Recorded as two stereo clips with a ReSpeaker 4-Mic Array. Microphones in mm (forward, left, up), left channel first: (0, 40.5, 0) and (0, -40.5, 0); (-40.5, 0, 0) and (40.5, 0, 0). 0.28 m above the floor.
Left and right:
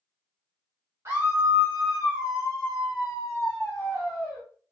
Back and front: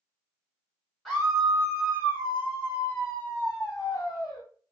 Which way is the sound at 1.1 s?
95° right.